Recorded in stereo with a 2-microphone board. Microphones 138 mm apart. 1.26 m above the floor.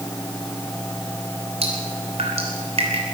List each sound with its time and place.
1.6 s dripping: 45° right (ahead or behind), 3 m